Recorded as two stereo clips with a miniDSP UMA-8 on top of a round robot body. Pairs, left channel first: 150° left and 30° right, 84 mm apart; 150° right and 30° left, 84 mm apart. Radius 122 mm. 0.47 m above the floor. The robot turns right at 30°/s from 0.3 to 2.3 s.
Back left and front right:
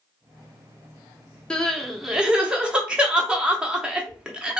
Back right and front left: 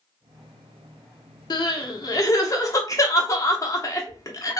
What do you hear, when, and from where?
1.5 s crying: 130° right, 0.8 m; by 4.6 s 105° right, 0.8 m